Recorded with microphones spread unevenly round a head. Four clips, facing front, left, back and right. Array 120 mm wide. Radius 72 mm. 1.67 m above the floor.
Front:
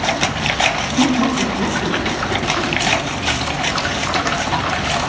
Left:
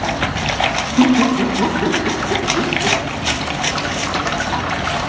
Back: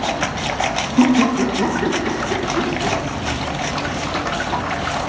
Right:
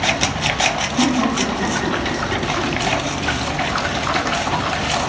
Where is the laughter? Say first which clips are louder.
Left 6 dB, back 3 dB; 155° left, 1.9 m; by 3.0 s 115° left, 1.2 m.